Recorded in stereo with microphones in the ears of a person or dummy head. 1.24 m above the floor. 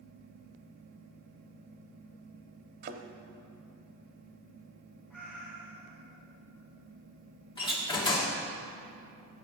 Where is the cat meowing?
5° left (ahead or behind), 4 m.